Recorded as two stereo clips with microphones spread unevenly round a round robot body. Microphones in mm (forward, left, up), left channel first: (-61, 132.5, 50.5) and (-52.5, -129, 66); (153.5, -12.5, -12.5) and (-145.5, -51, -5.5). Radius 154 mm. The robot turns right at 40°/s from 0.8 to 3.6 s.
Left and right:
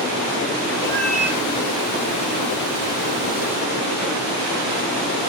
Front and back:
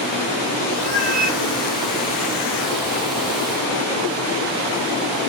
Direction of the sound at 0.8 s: 170° left.